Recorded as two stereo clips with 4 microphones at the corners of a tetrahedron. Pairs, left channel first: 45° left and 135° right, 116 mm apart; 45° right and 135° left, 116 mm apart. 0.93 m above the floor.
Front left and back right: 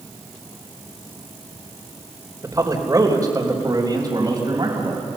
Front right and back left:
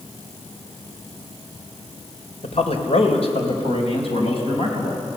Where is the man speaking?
70° right, 3 m; by 5.0 s 80° right, 5.5 m.